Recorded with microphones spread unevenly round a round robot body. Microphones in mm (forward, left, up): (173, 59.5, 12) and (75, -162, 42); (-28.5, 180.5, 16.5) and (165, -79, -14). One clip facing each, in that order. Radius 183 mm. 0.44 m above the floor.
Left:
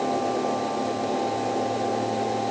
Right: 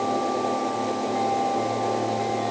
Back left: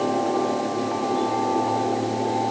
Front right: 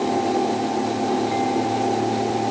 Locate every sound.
Only background noise.